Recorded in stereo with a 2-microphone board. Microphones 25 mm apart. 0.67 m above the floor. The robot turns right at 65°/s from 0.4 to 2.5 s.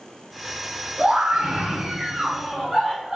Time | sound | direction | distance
1.0 | a scream | 135° right | 1.5 m